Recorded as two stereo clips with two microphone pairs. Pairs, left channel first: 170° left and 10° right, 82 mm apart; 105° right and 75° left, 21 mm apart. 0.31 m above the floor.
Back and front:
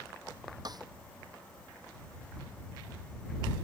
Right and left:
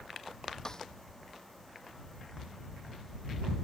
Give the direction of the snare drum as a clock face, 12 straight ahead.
2 o'clock.